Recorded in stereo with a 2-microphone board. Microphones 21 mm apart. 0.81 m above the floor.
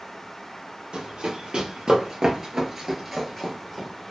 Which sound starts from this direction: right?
Running footsteps, at 0.9 s.